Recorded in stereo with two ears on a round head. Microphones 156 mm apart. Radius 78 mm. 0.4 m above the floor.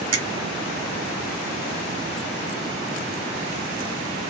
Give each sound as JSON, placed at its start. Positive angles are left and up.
{"t": 0.1, "sound": "a finger snap", "side_deg": -25, "distance_m": 1.2}